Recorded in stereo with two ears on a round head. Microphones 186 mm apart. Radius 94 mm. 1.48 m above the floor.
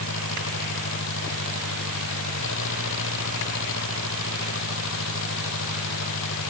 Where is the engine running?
65° left (ahead or behind).